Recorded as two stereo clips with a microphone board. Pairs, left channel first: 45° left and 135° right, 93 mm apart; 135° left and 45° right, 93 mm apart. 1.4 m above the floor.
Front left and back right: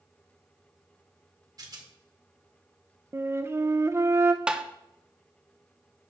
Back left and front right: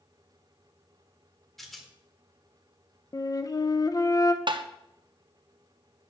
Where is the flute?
170° left, 0.6 m.